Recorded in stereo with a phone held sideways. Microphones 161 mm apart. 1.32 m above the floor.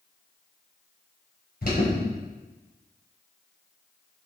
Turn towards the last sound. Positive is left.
turn(degrees=65)  # may be behind; listen again after turning